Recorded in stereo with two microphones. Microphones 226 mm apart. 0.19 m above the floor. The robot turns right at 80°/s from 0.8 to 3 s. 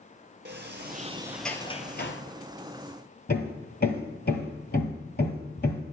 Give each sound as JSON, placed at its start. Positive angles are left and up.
{"t": 0.5, "sound": "a sliding door", "azimuth_deg": -50, "distance_m": 0.9}
{"t": 3.3, "sound": "hammering", "side_deg": 45, "distance_m": 1.4}